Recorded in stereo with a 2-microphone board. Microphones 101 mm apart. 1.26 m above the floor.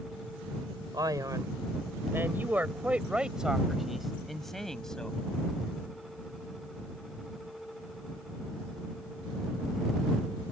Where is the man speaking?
40° right (ahead or behind); by 5.2 s 5° left (ahead or behind).